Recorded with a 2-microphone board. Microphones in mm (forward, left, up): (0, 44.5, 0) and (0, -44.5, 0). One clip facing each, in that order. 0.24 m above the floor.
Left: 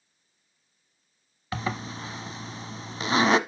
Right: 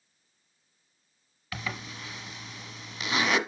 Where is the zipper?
35° left (ahead or behind), 0.9 m.